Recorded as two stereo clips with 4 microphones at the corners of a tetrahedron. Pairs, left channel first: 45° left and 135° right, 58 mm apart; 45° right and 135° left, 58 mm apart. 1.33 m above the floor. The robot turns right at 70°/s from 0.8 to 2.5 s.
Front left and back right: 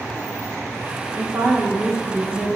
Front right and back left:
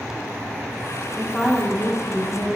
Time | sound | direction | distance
1.2 | a woman speaking | 130° right | 0.8 m